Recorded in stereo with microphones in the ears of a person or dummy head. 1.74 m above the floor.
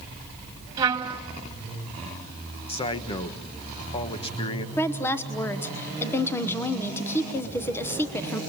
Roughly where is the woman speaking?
Centre.